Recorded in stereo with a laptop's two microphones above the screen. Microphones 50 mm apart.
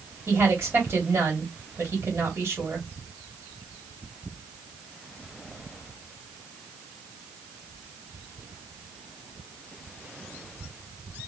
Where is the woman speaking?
60° right (ahead or behind), 2.5 m.